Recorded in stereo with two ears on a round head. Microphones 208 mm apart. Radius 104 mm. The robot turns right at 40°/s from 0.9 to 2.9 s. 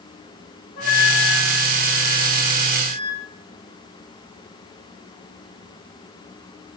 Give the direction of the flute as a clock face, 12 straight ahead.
7 o'clock.